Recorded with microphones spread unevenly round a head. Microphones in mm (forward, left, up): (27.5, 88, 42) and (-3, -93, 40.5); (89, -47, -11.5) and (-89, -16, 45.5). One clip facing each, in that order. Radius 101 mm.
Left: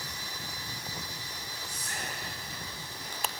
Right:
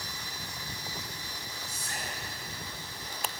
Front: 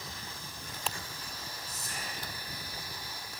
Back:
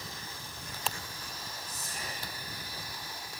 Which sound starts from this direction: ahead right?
Whispering, at 1.7 s.